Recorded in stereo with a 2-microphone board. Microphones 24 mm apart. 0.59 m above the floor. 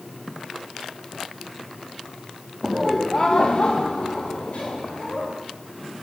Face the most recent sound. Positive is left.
turn(degrees=70)  # may be behind; listen again after turning